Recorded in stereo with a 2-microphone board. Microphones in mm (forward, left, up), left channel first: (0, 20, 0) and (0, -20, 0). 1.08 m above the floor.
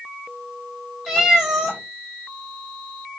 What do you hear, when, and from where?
1.1 s a cat meowing: centre (ahead or behind), 1.7 m